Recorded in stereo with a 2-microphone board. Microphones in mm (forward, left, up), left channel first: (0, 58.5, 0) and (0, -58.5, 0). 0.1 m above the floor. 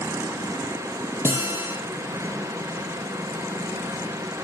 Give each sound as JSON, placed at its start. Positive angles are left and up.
{"t": 1.2, "sound": "a guitar", "side_deg": -20, "distance_m": 3.0}